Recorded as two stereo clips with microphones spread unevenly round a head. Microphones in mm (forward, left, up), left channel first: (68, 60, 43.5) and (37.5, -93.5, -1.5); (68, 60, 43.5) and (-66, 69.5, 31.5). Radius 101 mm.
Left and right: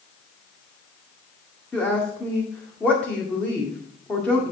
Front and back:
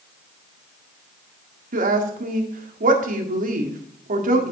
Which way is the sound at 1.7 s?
165° left.